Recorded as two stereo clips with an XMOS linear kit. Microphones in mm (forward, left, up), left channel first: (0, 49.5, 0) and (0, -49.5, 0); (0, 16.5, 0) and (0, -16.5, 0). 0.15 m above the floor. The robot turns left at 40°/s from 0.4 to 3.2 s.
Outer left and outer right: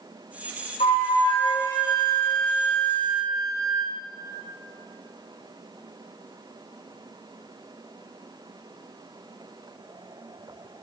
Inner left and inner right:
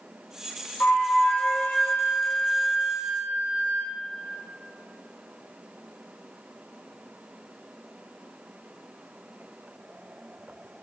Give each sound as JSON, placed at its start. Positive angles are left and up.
{"t": 0.8, "sound": "a flute", "azimuth_deg": 70, "distance_m": 2.0}